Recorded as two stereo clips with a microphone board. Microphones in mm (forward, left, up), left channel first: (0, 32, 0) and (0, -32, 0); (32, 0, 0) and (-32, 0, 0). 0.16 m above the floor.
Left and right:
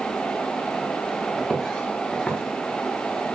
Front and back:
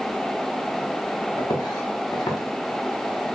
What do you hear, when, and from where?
1.4 s footsteps: 5° left, 2.0 m; by 3.2 s 25° left, 3 m